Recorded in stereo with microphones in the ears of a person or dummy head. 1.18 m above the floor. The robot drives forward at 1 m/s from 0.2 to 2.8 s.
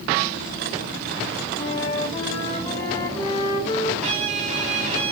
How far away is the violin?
About 0.8 m.